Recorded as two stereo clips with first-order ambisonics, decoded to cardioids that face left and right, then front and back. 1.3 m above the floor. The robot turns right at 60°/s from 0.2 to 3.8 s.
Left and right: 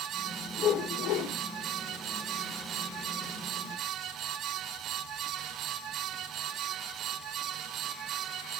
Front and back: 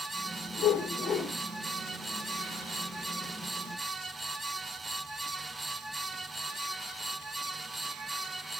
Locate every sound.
0.6 s a whoosh: 35° left, 5.5 m; by 1.3 s 80° left, 5.5 m